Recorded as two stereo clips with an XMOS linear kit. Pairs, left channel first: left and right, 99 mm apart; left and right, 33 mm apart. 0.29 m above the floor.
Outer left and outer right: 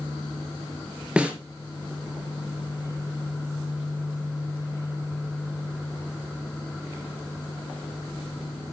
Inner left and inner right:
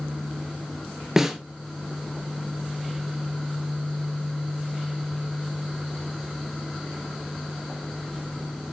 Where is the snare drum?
10° right (ahead or behind), 2.5 m.